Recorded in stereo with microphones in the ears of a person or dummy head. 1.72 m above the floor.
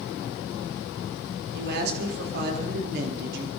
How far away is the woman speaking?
About 4.5 m.